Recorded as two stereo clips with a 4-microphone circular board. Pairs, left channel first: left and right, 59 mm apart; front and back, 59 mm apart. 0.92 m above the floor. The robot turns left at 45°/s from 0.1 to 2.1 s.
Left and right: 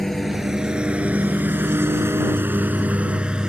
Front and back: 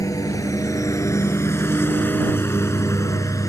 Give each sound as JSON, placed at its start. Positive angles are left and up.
{"t": 0.0, "sound": "a lawn mower", "azimuth_deg": 5}